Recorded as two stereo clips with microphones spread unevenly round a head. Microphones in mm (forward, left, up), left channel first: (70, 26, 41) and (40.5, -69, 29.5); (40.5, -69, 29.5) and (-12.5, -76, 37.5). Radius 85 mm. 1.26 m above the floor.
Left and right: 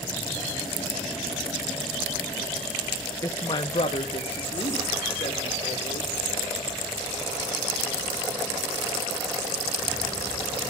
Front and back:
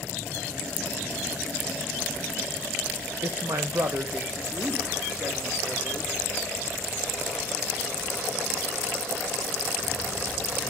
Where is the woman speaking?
140° left, 0.7 m; by 6.3 s 110° left, 3 m.